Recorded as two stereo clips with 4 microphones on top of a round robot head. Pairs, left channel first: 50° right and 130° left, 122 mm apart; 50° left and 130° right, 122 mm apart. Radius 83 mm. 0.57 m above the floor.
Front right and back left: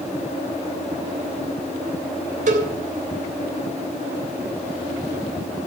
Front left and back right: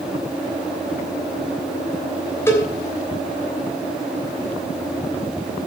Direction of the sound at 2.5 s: 120° left.